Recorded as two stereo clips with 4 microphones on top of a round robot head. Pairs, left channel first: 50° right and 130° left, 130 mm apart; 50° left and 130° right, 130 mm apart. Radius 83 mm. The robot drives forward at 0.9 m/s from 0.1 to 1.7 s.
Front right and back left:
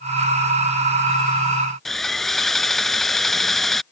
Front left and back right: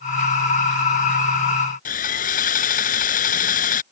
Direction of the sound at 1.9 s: 35° left.